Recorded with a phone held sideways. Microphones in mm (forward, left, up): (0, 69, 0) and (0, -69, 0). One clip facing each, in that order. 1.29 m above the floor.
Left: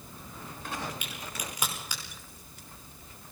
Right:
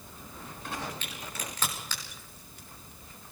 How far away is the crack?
About 5.5 m.